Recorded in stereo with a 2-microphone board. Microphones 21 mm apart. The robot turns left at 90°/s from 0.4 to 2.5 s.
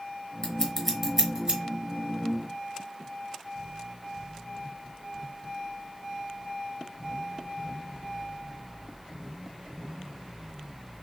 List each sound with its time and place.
0.4 s scissors: 35° left (ahead or behind), 1.2 m; by 1.6 s 45° right (ahead or behind), 1.2 m